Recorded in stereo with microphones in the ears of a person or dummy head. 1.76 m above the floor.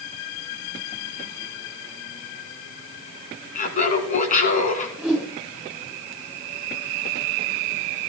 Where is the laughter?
40° left (ahead or behind), 2.5 m.